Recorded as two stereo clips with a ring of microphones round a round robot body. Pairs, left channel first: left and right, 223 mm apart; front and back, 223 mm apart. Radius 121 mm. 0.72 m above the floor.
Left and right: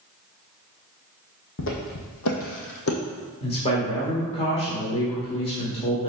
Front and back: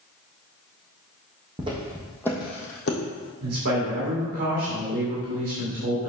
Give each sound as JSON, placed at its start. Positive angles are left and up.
{"t": 1.6, "sound": "footsteps", "azimuth_deg": 115, "distance_m": 1.9}
{"t": 3.4, "sound": "a man speaking", "azimuth_deg": 150, "distance_m": 1.7}